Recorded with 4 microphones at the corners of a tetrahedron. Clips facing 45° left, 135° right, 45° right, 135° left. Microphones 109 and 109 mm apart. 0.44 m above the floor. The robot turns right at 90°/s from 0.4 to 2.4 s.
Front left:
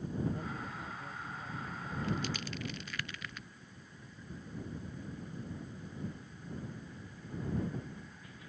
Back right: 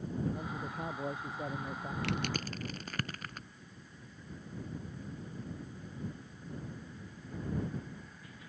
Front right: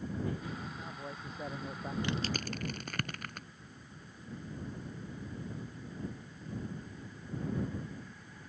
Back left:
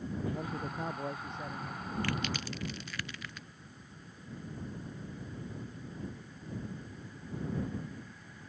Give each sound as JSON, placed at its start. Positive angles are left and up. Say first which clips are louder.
{"t": 0.3, "sound": "a man speaking", "louder": "back right 1 dB, back left 4 dB", "azimuth_deg": 145}
{"t": 2.0, "sound": "crushing", "louder": "even, even", "azimuth_deg": -120}